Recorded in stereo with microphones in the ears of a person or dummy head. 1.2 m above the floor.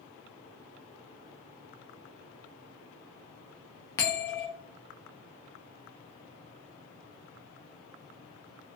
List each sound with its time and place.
4.0 s a bell: 10° left (ahead or behind), 0.5 m